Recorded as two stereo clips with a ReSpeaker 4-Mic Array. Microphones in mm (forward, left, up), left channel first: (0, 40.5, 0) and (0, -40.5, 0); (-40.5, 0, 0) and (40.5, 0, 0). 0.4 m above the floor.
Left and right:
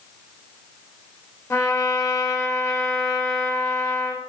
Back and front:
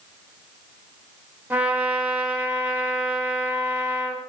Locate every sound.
1.5 s a trumpet: 55° left, 1.1 m